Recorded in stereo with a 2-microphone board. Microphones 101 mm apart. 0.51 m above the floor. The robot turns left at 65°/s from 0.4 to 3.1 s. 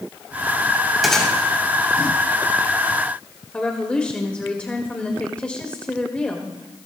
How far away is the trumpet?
No trumpet in this recording.